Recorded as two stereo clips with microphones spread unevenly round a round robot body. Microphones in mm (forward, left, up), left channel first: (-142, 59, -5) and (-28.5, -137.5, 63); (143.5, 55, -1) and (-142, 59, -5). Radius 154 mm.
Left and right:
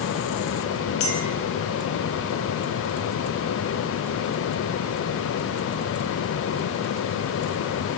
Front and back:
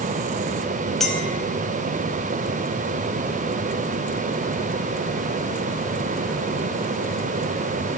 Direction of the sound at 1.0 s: 90° left.